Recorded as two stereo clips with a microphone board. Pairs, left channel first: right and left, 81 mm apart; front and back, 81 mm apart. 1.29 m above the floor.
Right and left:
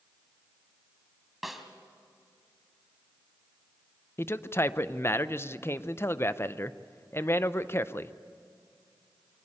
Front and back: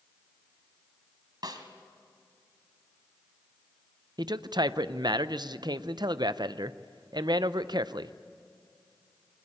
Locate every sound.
1.4 s a snare drum: straight behind, 1.8 m
4.2 s a man speaking: 150° right, 0.6 m